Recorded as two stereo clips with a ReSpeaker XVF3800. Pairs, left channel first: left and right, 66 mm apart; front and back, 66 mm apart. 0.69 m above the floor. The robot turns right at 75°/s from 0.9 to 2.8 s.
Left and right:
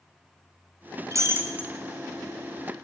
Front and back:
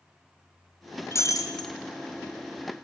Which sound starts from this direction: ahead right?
Breaking glass, at 1.1 s.